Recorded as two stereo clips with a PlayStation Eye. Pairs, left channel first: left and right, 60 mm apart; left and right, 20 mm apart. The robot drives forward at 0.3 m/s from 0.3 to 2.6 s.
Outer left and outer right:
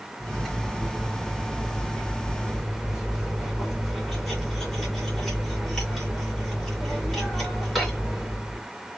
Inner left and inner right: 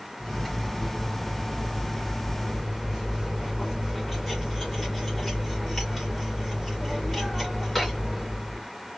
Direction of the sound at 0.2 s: Centre (ahead or behind).